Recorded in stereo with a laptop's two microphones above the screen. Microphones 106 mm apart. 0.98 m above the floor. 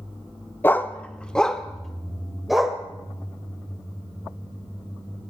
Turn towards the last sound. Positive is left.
turn(degrees=0)  # may be behind; listen again after turning